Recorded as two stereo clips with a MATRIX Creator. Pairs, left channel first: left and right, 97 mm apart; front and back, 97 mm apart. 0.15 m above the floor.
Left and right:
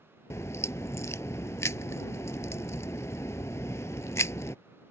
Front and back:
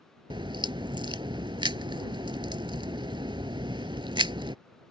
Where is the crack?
150° left.